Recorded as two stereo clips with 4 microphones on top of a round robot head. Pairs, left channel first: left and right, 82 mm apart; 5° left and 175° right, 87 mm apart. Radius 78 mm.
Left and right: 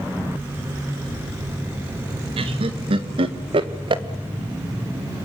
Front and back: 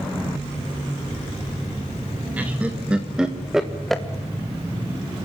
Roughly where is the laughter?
Right.